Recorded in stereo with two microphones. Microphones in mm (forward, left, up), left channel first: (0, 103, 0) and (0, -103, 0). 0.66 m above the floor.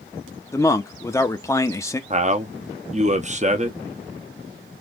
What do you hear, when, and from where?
0.5 s a man speaking: 15° left (ahead or behind), 0.7 m
2.1 s a man speaking: 35° right (ahead or behind), 0.6 m